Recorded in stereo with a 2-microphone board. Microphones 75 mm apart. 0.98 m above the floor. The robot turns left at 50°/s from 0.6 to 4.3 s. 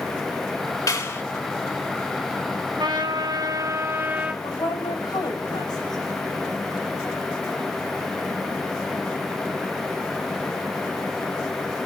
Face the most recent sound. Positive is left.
turn(degrees=65)  # may be behind; listen again after turning